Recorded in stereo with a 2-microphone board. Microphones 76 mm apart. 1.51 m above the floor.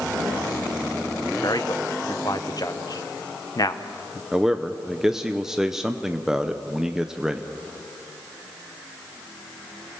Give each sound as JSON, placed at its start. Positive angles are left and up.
{"t": 1.4, "sound": "a man speaking", "side_deg": 55, "distance_m": 1.0}
{"t": 4.3, "sound": "a man speaking", "side_deg": -5, "distance_m": 0.7}